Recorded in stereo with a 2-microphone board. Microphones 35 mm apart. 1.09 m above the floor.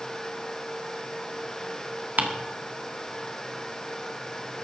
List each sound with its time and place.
2.2 s ticking: 60° right (ahead or behind), 1.7 m